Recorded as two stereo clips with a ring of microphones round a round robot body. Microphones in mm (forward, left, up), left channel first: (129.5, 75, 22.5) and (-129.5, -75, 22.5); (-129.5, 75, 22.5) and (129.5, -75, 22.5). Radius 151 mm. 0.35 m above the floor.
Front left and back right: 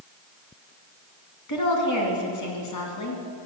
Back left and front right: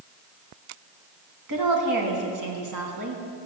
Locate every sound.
1.5 s a woman speaking: 5° right, 3 m